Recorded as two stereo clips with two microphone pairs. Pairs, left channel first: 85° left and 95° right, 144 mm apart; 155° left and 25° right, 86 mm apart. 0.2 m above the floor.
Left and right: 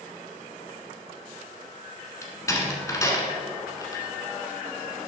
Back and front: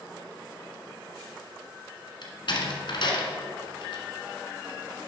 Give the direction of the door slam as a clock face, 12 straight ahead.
7 o'clock.